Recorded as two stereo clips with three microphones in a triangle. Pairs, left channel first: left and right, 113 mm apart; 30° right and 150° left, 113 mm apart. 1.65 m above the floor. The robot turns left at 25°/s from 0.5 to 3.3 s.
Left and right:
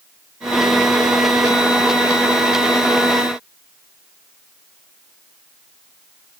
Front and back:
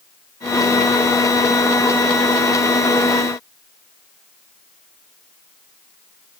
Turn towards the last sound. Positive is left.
No sound to turn to.